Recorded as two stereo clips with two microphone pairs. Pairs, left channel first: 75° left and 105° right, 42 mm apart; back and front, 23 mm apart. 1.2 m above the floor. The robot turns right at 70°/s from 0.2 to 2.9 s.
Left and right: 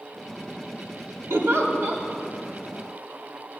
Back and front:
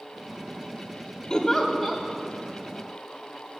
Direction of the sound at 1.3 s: 120° right.